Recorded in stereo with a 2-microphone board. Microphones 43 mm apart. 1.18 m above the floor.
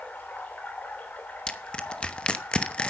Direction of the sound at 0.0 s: 40° left (ahead or behind).